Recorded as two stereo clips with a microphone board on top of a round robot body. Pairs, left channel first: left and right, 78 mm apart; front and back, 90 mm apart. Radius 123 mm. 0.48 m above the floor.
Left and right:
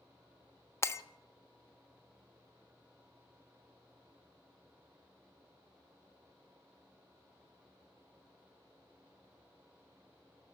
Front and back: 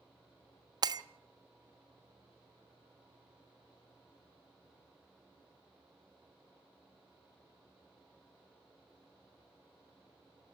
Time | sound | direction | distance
0.8 | breaking glass | 140° left | 1.3 m